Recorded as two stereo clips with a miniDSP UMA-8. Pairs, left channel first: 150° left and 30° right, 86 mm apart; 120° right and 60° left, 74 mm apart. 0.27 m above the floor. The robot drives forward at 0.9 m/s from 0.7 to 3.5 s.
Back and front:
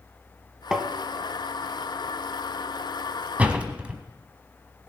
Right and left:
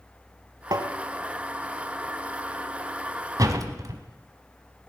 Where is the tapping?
50° left, 0.9 m; by 0.9 s 60° left, 0.8 m.